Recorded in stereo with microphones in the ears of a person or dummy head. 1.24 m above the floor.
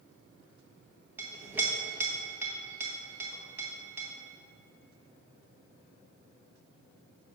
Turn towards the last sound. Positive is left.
turn(degrees=-10)  # may be behind; listen again after turning